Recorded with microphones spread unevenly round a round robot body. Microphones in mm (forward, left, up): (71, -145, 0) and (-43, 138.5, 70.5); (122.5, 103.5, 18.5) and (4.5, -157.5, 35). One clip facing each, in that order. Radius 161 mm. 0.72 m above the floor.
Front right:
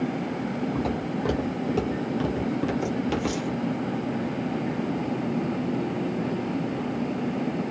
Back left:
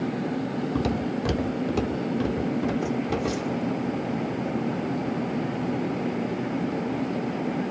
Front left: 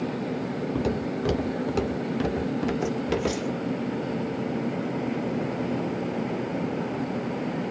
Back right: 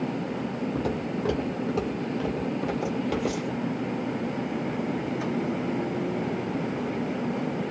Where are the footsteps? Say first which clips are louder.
Back left 2 dB, front left 2 dB; 135° left, 1.0 m; by 3.6 s 5° right, 1.2 m.